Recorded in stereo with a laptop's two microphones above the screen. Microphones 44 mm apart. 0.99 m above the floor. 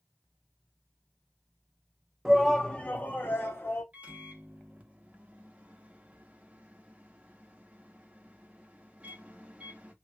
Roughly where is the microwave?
Right.